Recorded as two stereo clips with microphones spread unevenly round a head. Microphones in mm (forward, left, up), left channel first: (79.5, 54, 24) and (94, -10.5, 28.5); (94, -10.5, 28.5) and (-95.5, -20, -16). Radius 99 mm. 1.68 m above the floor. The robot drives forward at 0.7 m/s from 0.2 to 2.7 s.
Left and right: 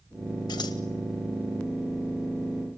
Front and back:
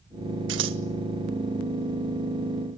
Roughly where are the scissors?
Behind left.